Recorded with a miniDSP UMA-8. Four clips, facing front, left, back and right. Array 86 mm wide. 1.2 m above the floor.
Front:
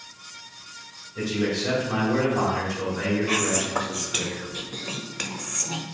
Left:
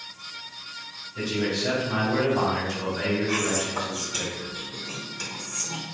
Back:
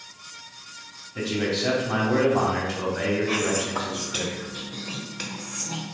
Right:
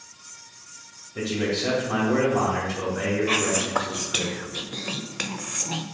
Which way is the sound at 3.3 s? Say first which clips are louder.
Right 2 dB, even; 70° right.